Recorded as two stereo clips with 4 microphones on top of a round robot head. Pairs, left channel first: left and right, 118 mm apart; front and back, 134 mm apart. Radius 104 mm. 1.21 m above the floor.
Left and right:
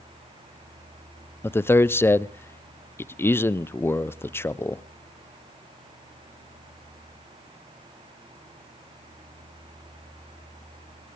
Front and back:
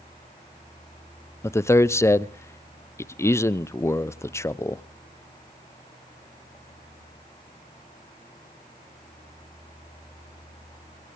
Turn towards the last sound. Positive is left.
turn(degrees=45)